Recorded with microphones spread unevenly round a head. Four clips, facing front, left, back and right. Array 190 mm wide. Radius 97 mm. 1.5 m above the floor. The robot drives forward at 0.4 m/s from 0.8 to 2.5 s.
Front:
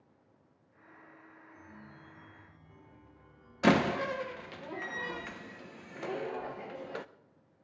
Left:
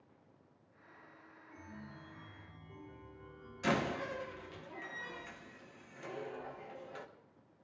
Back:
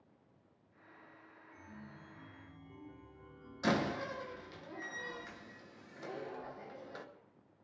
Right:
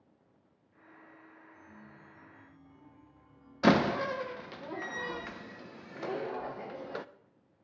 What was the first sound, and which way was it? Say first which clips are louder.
A chime: left 6 dB, back 1 dB; 100° left.